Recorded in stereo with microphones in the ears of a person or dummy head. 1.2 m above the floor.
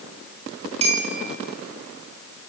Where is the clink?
35° right (ahead or behind), 2.5 m.